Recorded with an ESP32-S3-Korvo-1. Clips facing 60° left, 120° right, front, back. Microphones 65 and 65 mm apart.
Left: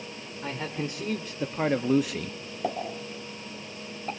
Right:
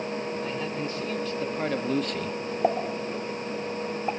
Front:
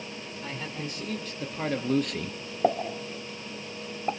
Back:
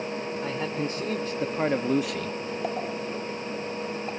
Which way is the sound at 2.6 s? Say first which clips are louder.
Right 5 dB, front 7 dB; 55° right.